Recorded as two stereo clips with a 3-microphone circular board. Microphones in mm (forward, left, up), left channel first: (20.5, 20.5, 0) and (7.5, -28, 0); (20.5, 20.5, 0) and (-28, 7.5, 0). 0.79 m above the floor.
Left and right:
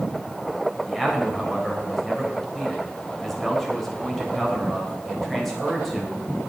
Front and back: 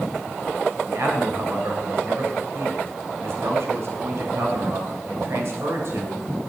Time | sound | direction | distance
0.9 | a man speaking | 165° left | 3.5 m